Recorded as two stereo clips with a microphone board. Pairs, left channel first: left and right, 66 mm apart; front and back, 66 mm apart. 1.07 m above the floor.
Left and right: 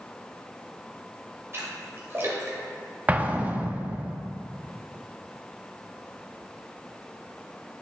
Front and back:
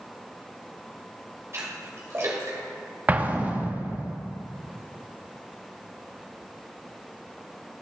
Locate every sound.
1.5 s a splash: 135° right, 1.9 m
3.1 s an explosion: 130° right, 0.5 m